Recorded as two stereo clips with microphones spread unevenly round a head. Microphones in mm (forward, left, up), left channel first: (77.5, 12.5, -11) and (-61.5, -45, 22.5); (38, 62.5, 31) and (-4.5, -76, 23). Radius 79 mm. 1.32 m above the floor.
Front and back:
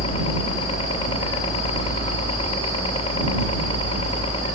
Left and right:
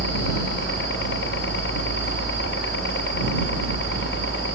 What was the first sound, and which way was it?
A helicopter, 80° left.